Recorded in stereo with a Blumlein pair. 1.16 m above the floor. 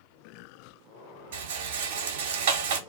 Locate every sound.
1.3 s a rattle: 55° right, 0.6 m